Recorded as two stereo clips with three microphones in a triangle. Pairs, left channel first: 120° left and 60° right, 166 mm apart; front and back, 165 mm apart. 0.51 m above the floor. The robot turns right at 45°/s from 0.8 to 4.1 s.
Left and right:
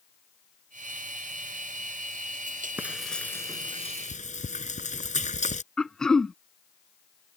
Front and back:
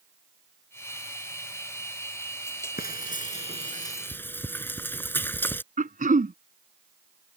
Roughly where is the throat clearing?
Behind right.